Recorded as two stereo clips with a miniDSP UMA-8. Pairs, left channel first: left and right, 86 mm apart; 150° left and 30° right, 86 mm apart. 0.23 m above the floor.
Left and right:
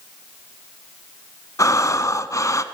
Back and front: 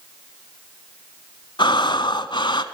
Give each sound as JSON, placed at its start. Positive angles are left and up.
{"t": 1.6, "sound": "breathing", "azimuth_deg": 135, "distance_m": 0.8}